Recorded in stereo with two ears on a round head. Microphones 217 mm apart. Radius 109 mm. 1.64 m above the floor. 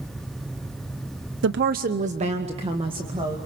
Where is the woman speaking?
50° right (ahead or behind), 0.7 m; by 3.4 s 20° right (ahead or behind), 2.5 m.